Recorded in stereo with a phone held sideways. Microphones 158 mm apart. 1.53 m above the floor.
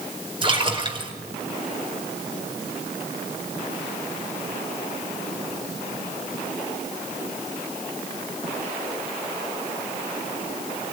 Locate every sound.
0.4 s a splash: 35° right (ahead or behind), 5 m